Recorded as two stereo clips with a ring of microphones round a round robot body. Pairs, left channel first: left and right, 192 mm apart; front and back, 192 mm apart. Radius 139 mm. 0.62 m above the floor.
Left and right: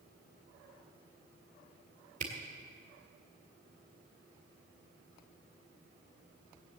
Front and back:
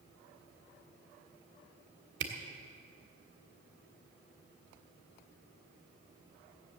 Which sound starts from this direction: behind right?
A camera shutter, at 2.2 s.